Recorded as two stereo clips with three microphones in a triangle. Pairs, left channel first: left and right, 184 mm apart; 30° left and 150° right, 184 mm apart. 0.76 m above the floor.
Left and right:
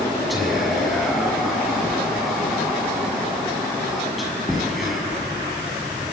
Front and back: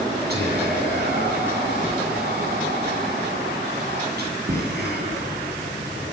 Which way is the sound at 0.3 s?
Straight behind.